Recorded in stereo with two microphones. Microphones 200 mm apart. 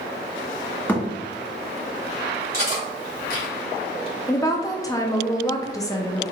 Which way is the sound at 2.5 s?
50° right (ahead or behind).